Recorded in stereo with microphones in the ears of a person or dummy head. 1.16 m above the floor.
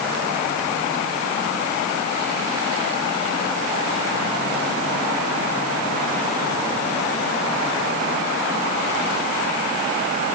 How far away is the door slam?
No door slam in this recording.